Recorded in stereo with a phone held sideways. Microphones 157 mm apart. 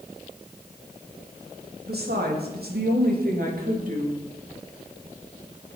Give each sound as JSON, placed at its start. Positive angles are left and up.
{"t": 1.9, "sound": "a woman speaking", "side_deg": -85, "distance_m": 2.5}